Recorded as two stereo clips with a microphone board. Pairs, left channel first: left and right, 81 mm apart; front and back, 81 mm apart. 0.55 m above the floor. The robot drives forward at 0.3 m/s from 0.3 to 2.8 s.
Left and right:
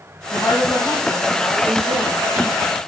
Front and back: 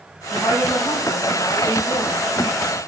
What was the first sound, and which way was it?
A woman speaking, 35° left.